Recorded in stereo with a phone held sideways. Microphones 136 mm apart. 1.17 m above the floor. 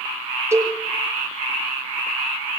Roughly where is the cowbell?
Centre.